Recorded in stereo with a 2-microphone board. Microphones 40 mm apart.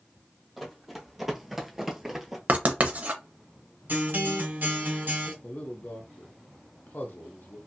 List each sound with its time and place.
0.6 s running footsteps: 5° right (ahead or behind), 1.4 m
2.5 s writing: 40° right (ahead or behind), 0.7 m
3.9 s a guitar: 55° right (ahead or behind), 1.6 m
5.4 s a man speaking: 55° left (ahead or behind), 0.7 m